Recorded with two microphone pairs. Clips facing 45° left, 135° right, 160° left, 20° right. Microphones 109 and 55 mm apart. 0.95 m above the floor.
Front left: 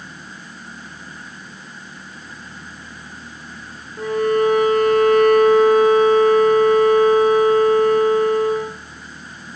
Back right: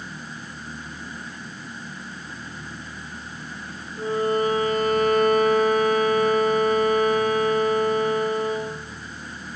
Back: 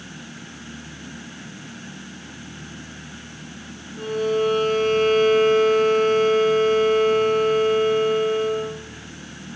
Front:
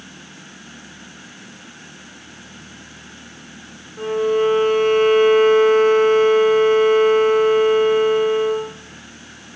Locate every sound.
4.0 s a violin: 45° left, 8.5 m